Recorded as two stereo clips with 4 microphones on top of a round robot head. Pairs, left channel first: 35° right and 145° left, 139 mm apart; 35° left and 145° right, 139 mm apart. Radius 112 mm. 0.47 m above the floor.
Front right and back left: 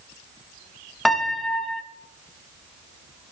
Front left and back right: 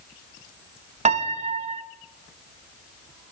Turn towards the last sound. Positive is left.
turn(degrees=-125)